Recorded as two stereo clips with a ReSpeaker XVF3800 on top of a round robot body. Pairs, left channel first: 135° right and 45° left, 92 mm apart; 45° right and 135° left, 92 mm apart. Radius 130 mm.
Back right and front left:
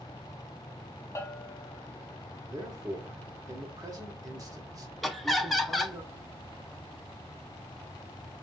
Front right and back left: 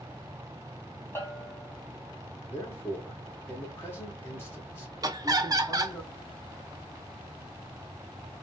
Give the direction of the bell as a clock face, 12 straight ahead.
3 o'clock.